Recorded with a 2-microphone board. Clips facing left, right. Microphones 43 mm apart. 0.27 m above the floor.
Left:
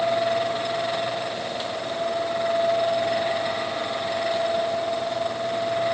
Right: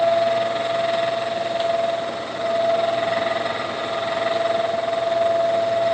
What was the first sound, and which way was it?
Only background noise.